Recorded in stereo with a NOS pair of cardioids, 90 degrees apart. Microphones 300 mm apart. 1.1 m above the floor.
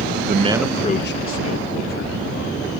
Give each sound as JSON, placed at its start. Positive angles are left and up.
{"t": 0.3, "sound": "a man speaking", "azimuth_deg": -40}